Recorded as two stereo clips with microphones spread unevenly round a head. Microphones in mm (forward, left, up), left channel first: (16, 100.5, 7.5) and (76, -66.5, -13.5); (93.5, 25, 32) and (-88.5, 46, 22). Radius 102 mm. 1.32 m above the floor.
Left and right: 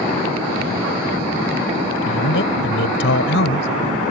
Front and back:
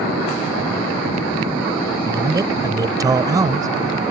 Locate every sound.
2.0 s a man speaking: 100° left